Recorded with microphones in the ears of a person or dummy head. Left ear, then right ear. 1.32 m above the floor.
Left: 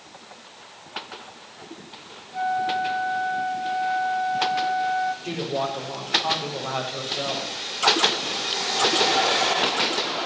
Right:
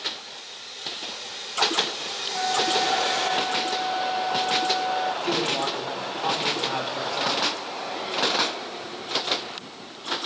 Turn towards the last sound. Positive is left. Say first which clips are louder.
# right 3 dB
turn(degrees=-40)  # may be behind; listen again after turning